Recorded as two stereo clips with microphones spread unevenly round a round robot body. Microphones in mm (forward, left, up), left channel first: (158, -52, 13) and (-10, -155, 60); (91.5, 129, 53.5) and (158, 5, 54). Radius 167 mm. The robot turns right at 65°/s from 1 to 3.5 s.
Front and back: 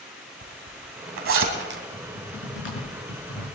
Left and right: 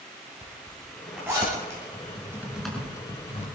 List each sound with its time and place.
0.4 s a zipper: 160° right, 3 m; by 1.8 s 105° right, 3 m
1.9 s typing on a keyboard: 15° right, 5.5 m; by 3.5 s 80° left, 5.5 m